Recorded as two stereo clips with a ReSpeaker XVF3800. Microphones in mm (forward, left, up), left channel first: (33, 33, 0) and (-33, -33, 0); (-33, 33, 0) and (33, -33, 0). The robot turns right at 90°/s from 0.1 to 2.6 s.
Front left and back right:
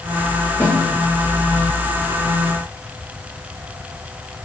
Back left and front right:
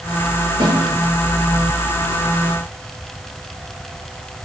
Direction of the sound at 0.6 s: 20° right.